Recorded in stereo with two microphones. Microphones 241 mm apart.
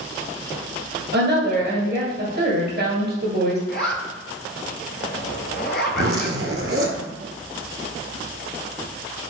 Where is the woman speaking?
40° right (ahead or behind), 1.5 m.